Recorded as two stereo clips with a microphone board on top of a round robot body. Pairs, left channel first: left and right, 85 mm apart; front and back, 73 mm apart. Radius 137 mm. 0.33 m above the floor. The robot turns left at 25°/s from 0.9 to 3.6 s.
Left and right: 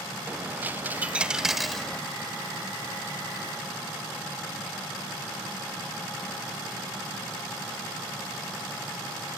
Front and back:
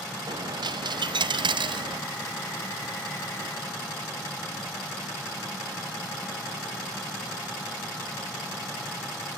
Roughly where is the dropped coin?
Behind.